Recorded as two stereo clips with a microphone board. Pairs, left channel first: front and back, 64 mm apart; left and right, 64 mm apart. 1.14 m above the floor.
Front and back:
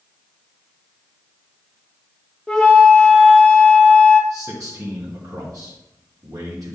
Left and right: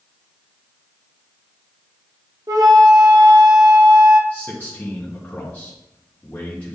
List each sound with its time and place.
2.5 s a flute: 80° right, 1.0 m
4.3 s a man speaking: 155° left, 1.4 m